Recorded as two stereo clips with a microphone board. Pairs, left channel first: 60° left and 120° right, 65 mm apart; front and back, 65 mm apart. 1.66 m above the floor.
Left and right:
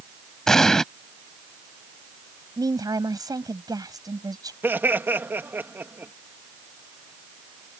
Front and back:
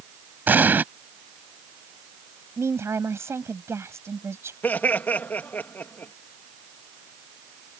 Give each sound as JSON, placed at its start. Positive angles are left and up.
{"t": 0.5, "sound": "an explosion", "azimuth_deg": 135}
{"t": 2.6, "sound": "a woman speaking", "azimuth_deg": -130}
{"t": 4.6, "sound": "laughter", "azimuth_deg": -65}